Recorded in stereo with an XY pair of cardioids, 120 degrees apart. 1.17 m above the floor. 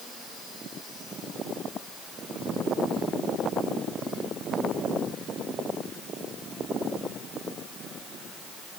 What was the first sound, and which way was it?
Only background noise.